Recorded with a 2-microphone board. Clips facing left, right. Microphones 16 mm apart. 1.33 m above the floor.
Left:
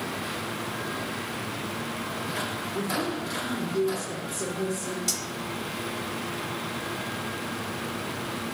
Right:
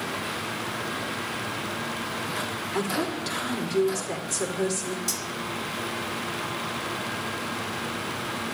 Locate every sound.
2.7 s a woman speaking: 60° right (ahead or behind), 4.5 m
5.1 s cutlery clinking: 20° left (ahead or behind), 2 m